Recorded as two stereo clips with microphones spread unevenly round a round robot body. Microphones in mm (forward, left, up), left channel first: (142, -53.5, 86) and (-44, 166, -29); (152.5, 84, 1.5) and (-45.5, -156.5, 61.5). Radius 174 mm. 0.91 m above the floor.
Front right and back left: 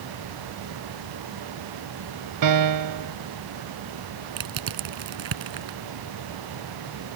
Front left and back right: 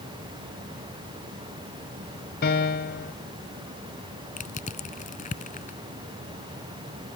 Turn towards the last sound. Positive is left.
turn(degrees=125)